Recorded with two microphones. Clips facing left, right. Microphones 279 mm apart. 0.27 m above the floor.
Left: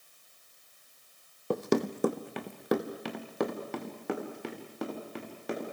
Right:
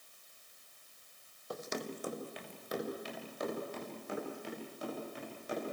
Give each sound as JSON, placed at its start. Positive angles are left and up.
{"t": 1.5, "sound": "running footsteps", "side_deg": 65, "distance_m": 0.7}